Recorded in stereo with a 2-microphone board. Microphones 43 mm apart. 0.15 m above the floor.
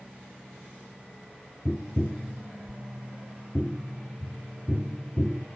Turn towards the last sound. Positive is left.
turn(degrees=20)  # may be behind; listen again after turning